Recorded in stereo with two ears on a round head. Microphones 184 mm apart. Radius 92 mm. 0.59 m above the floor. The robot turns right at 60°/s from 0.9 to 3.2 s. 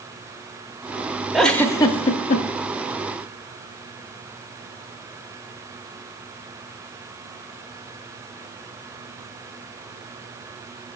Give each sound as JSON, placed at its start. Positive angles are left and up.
{"t": 1.3, "sound": "a giggle", "side_deg": 0, "distance_m": 0.5}